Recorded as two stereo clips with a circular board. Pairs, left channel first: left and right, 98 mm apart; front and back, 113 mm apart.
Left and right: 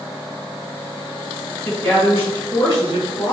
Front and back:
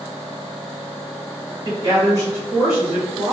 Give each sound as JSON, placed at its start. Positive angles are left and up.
{"t": 1.6, "sound": "a woman speaking", "azimuth_deg": 160, "distance_m": 1.8}